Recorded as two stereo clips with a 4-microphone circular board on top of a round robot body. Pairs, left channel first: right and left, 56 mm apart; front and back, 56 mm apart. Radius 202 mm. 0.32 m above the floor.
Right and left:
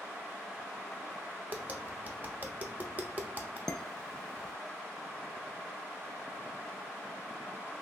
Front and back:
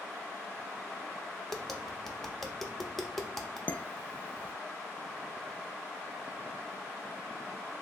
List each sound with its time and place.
1.5 s tapping: 80° left, 0.9 m
3.7 s dishes clattering: 20° right, 0.6 m